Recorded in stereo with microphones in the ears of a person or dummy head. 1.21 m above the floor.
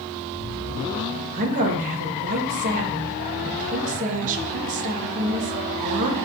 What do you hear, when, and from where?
1.3 s a woman speaking: 45° right (ahead or behind), 1.7 m